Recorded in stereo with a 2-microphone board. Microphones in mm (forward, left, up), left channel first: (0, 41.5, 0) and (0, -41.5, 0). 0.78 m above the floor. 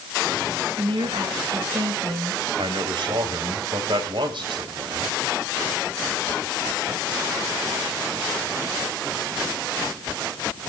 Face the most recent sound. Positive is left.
turn(degrees=-75)  # may be behind; listen again after turning